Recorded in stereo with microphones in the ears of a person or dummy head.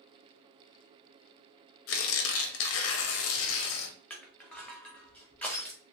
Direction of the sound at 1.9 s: 70° left (ahead or behind).